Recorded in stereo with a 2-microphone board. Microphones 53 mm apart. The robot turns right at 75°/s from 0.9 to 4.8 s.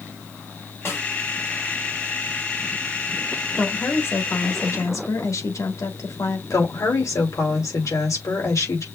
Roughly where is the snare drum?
Left.